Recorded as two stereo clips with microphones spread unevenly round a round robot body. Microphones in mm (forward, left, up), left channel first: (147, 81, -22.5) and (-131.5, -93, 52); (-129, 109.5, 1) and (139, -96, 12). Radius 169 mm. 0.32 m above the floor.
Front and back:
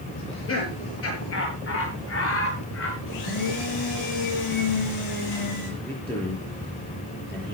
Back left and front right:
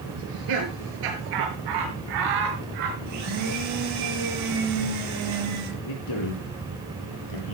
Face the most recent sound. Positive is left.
turn(degrees=115)